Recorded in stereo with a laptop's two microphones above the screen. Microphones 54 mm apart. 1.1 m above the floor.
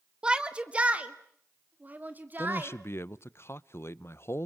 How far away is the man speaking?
About 0.8 m.